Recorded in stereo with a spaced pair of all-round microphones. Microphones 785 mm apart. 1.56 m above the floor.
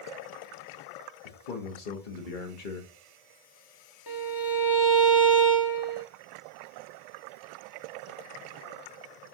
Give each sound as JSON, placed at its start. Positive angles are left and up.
{"t": 1.2, "sound": "a man speaking", "side_deg": 85, "distance_m": 1.0}
{"t": 4.1, "sound": "a violin", "side_deg": 30, "distance_m": 0.5}